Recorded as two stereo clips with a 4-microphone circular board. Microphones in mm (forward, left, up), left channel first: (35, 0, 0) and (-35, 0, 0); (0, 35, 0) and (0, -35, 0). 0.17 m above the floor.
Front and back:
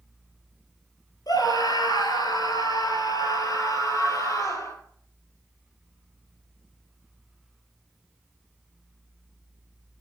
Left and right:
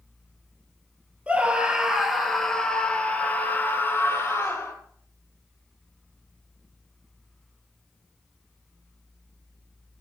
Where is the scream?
20° right, 3 m; by 4.7 s 45° left, 4 m.